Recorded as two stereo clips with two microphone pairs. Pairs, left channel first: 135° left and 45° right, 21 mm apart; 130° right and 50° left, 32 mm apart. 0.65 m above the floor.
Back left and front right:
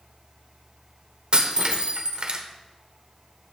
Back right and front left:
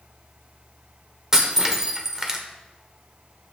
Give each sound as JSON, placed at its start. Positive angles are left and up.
{"t": 1.3, "sound": "breaking glass", "azimuth_deg": -20, "distance_m": 1.1}